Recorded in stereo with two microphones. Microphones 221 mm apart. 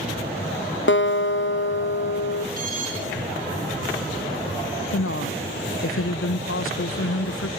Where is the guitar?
60° left (ahead or behind), 0.7 m.